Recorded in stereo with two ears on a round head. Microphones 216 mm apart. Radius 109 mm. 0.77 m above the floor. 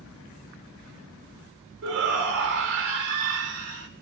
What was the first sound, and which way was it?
A shout, 70° right (ahead or behind).